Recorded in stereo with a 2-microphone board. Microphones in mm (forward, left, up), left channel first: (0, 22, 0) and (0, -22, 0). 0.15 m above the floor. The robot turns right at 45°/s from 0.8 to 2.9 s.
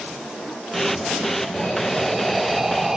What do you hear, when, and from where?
1.5 s breathing: 10° left (ahead or behind), 0.6 m; by 3.0 s 10° right (ahead or behind), 0.6 m